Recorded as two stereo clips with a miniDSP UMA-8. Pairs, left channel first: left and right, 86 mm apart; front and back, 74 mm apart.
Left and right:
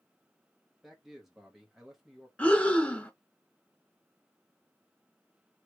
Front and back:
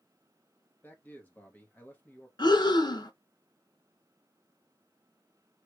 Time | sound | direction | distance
0.8 | a man speaking | 10° right | 1.0 m
2.4 | breathing | 15° left | 0.6 m